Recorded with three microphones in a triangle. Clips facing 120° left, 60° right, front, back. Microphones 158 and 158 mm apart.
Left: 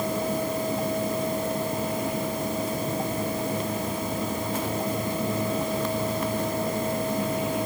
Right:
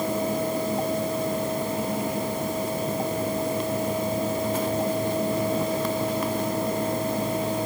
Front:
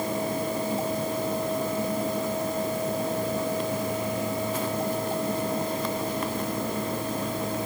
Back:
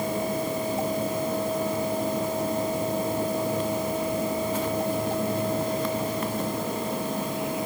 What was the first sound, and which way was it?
Only background noise.